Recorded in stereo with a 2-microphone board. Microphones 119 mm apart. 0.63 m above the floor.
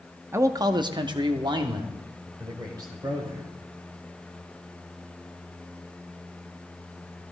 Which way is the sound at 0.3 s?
20° right (ahead or behind).